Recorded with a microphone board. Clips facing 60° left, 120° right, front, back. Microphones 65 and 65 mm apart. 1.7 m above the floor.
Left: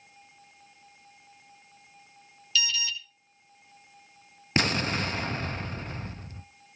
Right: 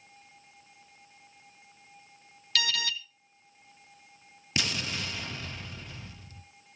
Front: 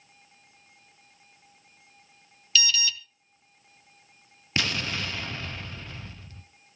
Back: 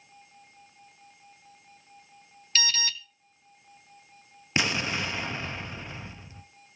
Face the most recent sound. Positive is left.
turn(degrees=110)